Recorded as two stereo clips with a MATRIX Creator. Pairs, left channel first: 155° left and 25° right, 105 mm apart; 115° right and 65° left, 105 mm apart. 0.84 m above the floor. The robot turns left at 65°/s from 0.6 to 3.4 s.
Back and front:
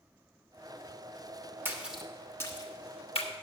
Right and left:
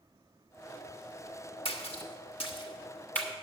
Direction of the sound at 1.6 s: 90° right.